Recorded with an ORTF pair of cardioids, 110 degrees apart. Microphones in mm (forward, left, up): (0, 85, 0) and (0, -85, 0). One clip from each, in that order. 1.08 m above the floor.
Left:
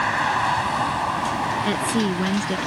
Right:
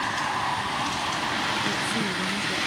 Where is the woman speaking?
55° left.